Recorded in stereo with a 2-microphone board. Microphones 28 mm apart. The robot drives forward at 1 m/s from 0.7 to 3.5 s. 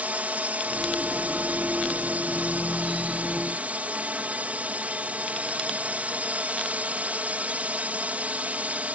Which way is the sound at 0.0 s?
65° right (ahead or behind).